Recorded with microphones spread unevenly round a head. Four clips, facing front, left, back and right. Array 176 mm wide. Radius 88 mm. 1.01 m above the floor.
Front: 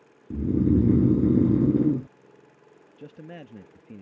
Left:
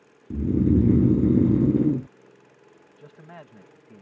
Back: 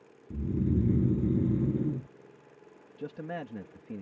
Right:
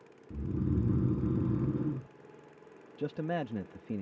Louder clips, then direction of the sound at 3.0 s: Right 12 dB, back 4 dB; 110° right.